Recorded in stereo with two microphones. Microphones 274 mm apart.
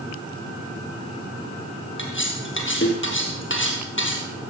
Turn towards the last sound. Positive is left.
turn(degrees=45)  # may be behind; listen again after turning